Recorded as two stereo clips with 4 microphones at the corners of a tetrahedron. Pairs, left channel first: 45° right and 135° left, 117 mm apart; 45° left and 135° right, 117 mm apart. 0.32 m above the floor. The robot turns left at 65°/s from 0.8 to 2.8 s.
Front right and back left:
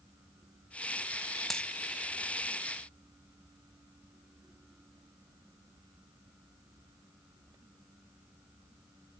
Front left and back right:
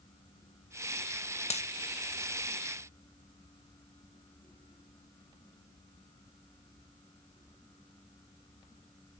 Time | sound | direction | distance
1.5 | a dropped coin | 45° left | 0.7 m